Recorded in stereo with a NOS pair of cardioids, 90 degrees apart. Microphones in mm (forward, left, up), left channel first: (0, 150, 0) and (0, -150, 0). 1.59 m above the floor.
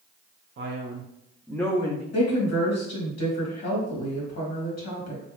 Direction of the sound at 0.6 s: 40° right.